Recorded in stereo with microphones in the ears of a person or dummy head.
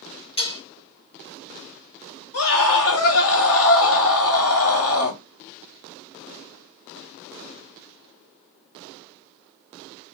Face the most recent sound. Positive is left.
turn(degrees=65)  # may be behind; listen again after turning